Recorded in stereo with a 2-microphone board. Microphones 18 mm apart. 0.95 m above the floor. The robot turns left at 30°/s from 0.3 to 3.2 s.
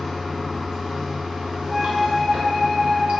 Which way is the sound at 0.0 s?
15° right.